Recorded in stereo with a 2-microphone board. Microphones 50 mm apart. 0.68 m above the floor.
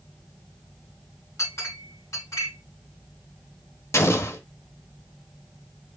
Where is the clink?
85° left, 3.5 m.